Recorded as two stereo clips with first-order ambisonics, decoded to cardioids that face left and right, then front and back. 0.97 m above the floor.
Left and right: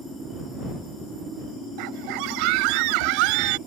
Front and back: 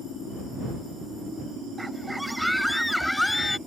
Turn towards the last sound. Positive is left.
turn(degrees=-80)